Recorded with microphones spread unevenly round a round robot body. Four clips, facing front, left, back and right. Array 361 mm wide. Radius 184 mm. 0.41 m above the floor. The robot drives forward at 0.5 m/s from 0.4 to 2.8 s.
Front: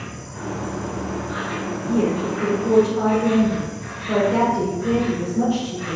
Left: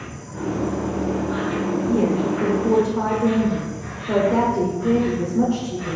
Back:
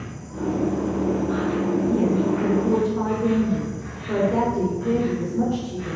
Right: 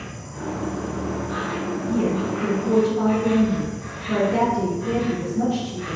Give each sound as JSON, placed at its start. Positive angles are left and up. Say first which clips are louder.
{"t": 0.0, "sound": "an insect", "louder": "left 3 dB, back 3 dB", "azimuth_deg": -130, "distance_m": 1.7}
{"t": 1.9, "sound": "a woman speaking", "louder": "left 2 dB, front 3 dB", "azimuth_deg": 70, "distance_m": 1.2}